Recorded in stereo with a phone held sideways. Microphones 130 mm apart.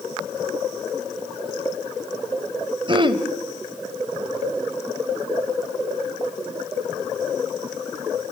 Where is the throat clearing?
40° right (ahead or behind), 1.2 m.